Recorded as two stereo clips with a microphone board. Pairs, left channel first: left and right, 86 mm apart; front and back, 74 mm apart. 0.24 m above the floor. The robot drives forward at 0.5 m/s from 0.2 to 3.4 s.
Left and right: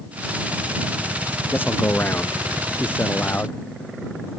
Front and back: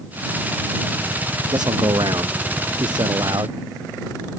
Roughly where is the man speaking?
Behind left.